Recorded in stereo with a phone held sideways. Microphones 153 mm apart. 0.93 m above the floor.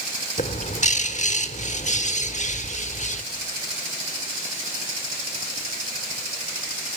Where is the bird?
50° left (ahead or behind), 1.1 m.